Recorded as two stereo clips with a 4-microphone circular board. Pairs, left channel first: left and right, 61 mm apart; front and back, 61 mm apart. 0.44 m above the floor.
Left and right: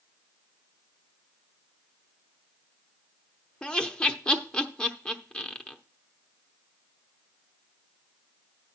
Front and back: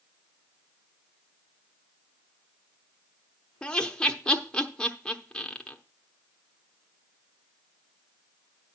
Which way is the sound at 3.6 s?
45° left.